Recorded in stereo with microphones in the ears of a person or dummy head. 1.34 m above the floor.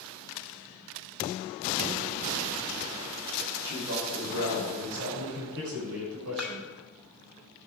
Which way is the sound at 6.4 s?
10° left (ahead or behind).